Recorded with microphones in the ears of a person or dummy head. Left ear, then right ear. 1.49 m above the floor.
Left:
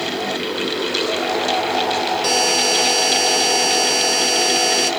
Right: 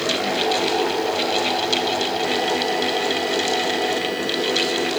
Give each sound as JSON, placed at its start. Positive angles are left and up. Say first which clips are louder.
{"t": 2.2, "sound": "a buzzer", "louder": "left 4 dB", "side_deg": 85}